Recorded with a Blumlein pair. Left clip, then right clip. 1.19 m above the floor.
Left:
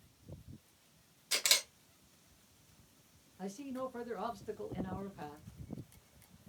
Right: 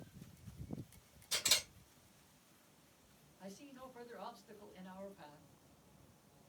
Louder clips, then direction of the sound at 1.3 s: Left 4 dB; 30° left.